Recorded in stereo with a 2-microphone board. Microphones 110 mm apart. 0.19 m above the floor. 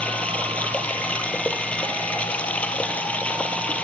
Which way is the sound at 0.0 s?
10° left (ahead or behind).